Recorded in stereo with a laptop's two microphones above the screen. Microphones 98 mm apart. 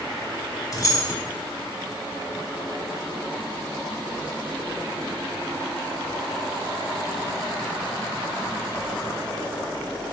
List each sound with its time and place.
0.7 s keys jangling: 35° left (ahead or behind), 0.7 m